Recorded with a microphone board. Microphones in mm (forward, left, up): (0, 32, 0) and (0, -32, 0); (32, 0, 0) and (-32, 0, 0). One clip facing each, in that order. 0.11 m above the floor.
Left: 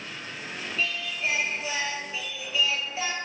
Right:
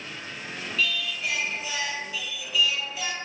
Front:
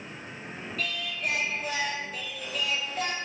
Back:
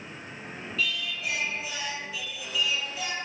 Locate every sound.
0.8 s singing: 35° left, 0.8 m